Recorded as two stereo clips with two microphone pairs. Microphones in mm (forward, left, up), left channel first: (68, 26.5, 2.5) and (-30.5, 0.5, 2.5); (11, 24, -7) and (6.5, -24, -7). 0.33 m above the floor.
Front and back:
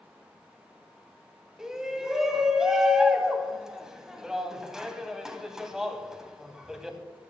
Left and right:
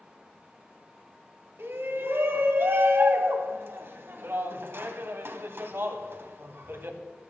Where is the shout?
80° right, 2.5 m.